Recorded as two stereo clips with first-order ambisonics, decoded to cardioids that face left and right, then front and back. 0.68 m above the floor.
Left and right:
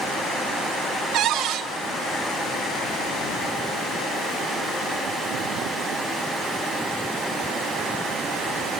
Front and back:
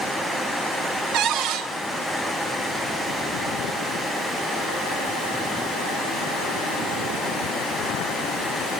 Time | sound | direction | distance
1.1 | a cupboard door | 145° right | 3 m